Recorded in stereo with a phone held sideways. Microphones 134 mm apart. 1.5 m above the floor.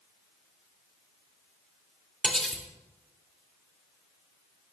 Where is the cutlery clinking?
5° left (ahead or behind), 2.5 m.